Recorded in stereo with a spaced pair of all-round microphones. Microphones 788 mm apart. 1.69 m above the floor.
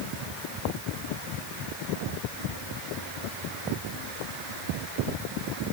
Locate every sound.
Only background noise.